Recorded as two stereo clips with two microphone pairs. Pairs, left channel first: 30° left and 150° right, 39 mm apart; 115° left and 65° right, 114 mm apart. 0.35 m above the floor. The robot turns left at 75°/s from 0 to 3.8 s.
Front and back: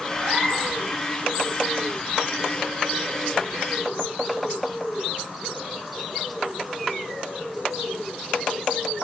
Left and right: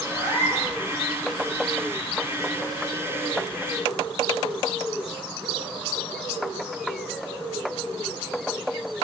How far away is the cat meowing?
About 1.0 m.